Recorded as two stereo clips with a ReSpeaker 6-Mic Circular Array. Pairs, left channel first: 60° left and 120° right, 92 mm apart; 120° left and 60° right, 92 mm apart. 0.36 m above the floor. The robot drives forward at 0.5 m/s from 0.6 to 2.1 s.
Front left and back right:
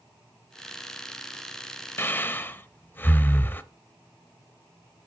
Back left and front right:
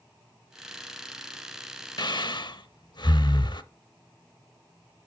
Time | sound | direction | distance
2.0 | breathing | 115° left | 0.6 m